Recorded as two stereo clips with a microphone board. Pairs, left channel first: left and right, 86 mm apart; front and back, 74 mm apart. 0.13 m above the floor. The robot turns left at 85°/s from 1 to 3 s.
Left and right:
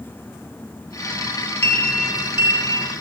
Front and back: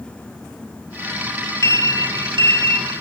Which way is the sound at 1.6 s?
30° left.